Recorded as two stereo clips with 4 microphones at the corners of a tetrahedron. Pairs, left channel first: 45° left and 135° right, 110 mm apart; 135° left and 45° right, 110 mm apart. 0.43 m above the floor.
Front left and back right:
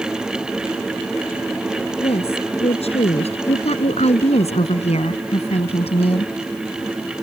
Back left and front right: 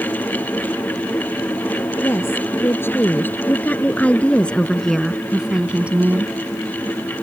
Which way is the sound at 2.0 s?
70° left.